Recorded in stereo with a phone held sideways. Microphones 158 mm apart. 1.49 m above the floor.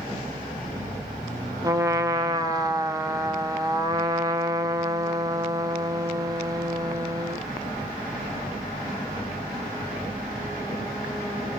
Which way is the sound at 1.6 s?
20° right (ahead or behind).